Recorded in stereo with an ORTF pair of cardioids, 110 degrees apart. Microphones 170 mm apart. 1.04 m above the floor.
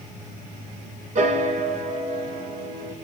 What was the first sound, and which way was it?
A piano, 50° right.